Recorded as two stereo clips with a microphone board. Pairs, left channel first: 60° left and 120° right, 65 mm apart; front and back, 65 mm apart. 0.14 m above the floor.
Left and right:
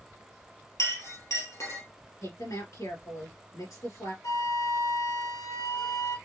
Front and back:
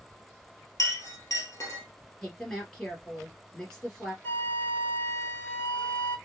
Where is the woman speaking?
75° left, 3 m.